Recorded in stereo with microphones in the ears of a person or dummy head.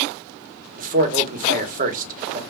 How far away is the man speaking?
About 1.4 m.